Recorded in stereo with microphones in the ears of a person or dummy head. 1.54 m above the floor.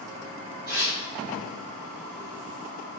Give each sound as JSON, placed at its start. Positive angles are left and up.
{"t": 0.7, "sound": "tearing paper", "side_deg": -25, "distance_m": 1.8}